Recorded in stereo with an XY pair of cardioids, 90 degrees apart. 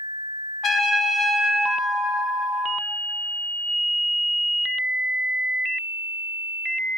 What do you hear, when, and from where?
0.6 s a trumpet: 65° left, 0.7 m